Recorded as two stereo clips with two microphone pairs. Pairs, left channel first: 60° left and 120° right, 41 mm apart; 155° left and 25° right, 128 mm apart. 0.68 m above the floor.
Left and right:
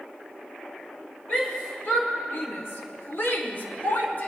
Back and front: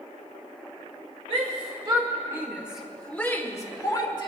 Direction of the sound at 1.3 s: 10° left.